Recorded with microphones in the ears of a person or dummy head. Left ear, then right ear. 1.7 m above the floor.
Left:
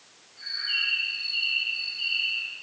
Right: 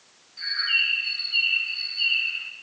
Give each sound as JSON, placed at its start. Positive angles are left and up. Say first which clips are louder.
{"t": 0.4, "sound": "a bird", "louder": "right 5 dB", "side_deg": -65, "distance_m": 3.0}